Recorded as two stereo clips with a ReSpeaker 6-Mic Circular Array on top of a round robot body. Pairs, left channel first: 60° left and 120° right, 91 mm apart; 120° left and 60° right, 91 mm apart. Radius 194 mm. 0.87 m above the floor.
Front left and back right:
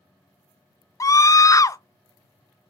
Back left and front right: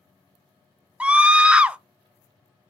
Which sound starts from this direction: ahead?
A scream, at 1.0 s.